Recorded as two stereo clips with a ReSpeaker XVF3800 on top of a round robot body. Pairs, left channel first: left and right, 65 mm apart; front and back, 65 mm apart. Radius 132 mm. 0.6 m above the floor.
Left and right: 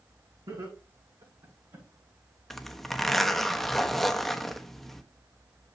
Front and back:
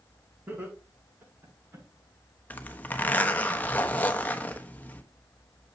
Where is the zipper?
5° left, 1.2 m.